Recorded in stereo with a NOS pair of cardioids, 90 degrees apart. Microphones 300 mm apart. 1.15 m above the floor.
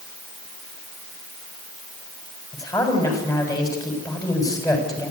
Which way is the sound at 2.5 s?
10° left.